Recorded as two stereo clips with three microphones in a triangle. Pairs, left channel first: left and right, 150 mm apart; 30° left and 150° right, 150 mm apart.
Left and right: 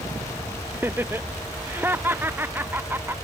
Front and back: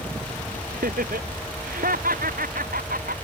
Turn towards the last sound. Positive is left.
turn(degrees=-165)